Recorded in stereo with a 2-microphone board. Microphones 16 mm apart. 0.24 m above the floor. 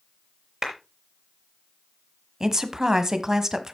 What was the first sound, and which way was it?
A clap, 25° right (ahead or behind).